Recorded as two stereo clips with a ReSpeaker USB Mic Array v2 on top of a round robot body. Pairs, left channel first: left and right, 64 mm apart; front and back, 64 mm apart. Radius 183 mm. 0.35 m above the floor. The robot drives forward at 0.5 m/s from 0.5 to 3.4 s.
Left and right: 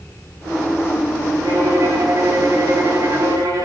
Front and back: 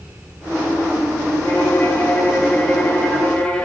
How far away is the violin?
About 3 m.